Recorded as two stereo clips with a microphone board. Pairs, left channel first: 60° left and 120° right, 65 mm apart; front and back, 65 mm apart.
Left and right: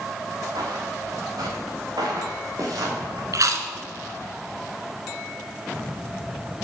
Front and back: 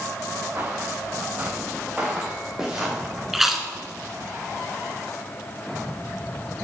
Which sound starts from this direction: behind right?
Footsteps, at 0.6 s.